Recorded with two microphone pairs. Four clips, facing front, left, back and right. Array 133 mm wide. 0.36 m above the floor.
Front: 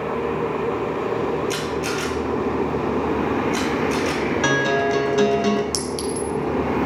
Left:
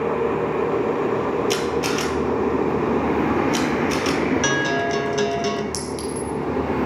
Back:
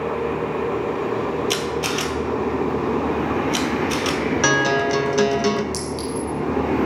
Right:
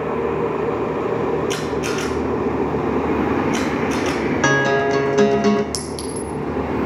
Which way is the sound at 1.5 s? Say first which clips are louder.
Even, back 1 dB; 155° left.